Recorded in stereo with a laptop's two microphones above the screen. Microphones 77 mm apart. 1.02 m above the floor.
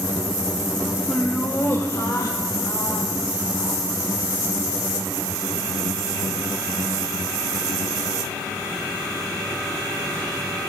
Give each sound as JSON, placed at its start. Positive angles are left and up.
{"t": 1.1, "sound": "laughter", "side_deg": 15, "distance_m": 0.7}